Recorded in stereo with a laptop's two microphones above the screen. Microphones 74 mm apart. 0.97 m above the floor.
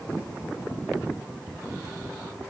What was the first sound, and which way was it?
Only background noise.